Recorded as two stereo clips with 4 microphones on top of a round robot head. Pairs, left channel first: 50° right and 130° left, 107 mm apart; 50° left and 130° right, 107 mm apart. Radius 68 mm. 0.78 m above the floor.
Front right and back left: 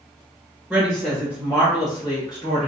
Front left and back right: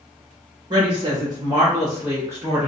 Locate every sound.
0.7 s a woman speaking: 150° right, 1.0 m; by 2.7 s 70° right, 1.4 m